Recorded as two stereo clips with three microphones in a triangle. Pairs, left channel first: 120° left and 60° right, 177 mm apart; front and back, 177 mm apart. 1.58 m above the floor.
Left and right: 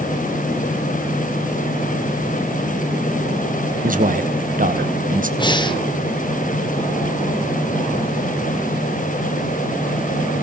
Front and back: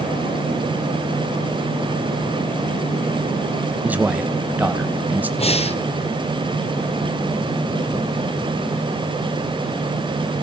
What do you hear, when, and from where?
3.8 s a man speaking: 100° right, 1.3 m
5.4 s breathing: 55° left, 1.0 m